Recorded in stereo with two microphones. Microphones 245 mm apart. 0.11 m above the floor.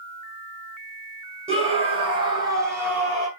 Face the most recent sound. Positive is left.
turn(degrees=0)  # may be behind; listen again after turning